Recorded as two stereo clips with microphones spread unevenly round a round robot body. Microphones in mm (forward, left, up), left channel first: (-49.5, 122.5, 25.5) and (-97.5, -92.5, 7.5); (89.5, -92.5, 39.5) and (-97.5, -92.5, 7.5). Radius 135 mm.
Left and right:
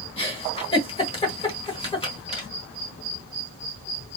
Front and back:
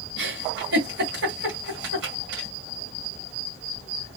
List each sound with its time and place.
0.2 s a giggle: 145° left, 1.6 m